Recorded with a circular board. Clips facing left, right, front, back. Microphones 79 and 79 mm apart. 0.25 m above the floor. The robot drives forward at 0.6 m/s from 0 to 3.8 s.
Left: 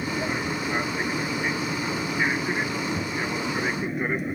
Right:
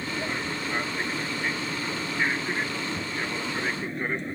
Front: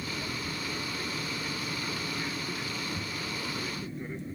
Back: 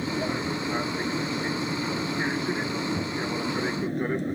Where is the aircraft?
170° left.